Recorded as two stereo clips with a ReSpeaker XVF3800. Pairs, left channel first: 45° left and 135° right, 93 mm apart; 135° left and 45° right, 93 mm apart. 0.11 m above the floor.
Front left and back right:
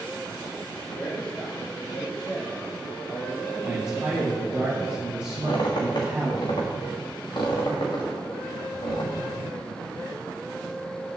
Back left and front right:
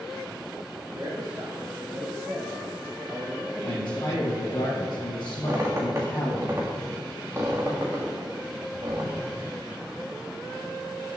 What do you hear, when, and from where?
0.9 s a man speaking: 25° right, 2.5 m; by 4.6 s 65° left, 2.5 m
3.6 s a man speaking: 150° left, 2 m
5.4 s a squeak: 10° left, 2.5 m